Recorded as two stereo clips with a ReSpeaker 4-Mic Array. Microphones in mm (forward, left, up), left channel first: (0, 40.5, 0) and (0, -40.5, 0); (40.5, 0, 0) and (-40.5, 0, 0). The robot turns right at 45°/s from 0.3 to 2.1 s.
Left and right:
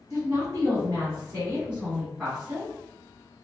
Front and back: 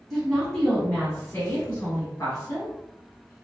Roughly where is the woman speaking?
Right.